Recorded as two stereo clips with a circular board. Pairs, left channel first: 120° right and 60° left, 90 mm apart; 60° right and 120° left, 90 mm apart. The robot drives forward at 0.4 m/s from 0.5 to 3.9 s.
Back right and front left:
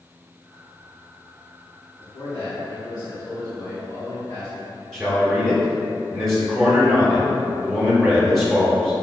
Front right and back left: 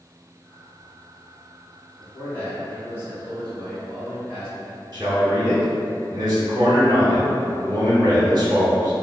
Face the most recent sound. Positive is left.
turn(degrees=150)